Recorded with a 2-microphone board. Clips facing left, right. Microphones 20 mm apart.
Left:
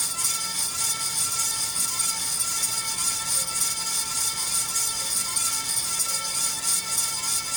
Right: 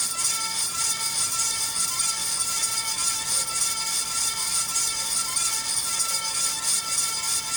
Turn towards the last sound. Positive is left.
No sound to turn to.